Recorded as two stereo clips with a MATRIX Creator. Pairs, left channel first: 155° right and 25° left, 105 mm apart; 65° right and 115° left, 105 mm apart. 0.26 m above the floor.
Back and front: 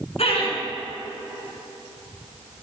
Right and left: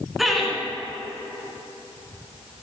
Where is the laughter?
160° right, 2.5 m.